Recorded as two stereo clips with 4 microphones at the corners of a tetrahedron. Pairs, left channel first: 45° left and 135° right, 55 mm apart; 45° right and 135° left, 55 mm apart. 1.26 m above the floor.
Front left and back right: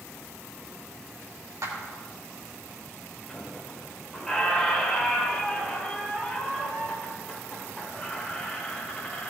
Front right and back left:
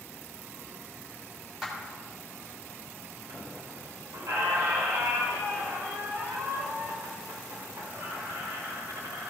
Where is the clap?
145° right, 3 m.